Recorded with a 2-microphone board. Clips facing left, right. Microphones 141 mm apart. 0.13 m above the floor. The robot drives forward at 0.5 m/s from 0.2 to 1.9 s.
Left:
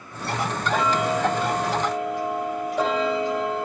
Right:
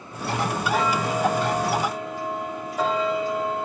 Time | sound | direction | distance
0.7 | ticking | 70° left (ahead or behind) | 5 m